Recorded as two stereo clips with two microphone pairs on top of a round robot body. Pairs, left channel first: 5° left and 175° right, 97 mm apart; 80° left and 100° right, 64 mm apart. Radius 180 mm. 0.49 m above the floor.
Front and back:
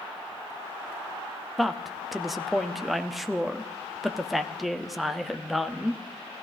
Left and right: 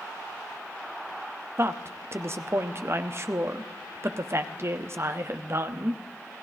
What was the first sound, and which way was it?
A woman speaking, 75° right.